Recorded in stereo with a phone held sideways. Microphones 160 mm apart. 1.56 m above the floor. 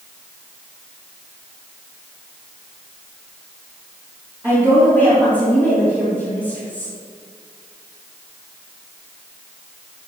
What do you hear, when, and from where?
4.4 s a woman speaking: 15° right (ahead or behind), 4 m